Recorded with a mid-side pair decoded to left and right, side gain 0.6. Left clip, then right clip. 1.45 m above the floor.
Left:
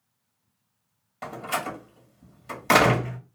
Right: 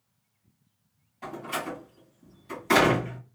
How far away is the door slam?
About 1.7 m.